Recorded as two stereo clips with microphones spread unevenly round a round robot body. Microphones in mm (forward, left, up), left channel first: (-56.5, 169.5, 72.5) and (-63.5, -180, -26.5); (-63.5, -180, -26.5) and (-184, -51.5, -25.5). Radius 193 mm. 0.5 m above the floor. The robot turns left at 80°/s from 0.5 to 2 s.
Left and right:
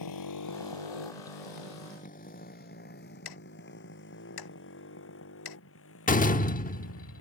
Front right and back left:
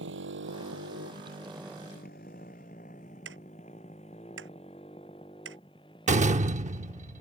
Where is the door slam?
165° left.